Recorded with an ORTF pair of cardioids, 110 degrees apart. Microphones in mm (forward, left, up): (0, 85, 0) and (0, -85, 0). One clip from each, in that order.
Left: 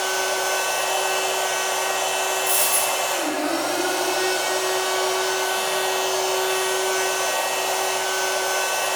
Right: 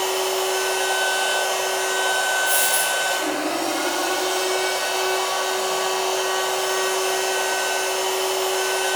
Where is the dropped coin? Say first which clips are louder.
Right 1 dB; 30° left, 1.0 m.